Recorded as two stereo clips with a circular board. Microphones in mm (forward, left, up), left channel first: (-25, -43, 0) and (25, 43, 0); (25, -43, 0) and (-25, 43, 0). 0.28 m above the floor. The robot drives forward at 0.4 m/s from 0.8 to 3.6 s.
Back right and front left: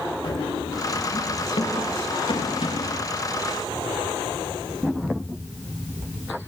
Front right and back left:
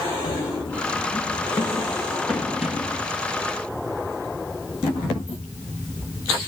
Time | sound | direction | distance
0.2 | running footsteps | 80° right | 2 m